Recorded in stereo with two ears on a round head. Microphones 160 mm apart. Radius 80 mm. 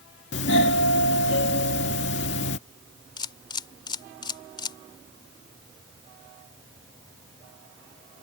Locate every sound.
0.3 s a doorbell: 70° left (ahead or behind)
3.2 s a camera shutter: 25° left (ahead or behind)